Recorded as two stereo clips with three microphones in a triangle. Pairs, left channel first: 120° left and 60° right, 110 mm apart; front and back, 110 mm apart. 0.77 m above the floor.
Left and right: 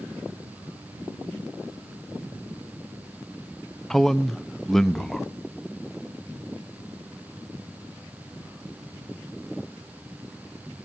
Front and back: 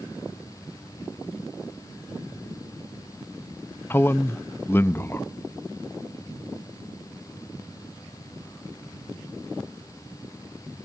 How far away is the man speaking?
About 0.5 m.